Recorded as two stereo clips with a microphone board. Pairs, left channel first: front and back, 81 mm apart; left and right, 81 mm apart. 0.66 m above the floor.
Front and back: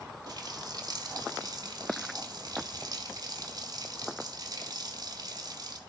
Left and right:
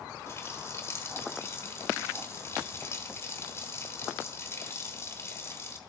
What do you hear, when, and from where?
0.3 s a running tap: 145° left, 1.4 m